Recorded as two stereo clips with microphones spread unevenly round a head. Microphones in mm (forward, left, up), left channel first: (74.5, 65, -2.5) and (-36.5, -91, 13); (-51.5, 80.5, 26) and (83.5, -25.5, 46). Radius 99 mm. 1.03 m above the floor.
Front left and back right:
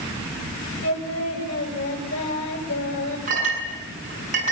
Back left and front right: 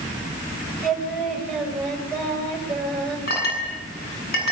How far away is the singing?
About 6.5 m.